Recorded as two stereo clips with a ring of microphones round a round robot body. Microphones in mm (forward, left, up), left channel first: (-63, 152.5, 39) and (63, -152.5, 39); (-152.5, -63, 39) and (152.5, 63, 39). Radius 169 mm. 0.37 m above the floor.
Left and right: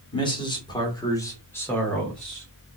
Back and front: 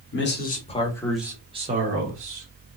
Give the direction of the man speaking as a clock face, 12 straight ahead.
6 o'clock.